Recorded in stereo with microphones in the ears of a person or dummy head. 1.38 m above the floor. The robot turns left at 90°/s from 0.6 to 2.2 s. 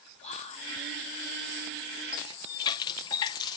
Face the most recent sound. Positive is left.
turn(degrees=20)  # may be behind; listen again after turning